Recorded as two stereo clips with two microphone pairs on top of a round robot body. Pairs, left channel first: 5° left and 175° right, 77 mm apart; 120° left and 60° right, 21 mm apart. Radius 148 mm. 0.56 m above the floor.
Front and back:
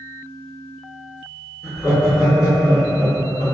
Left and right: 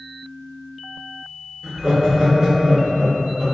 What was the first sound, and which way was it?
Laughter, 10° right.